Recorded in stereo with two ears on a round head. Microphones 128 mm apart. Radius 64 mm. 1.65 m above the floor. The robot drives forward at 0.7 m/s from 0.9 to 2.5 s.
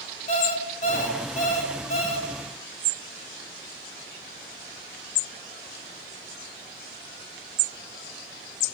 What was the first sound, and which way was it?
An alarm clock, 55° left (ahead or behind).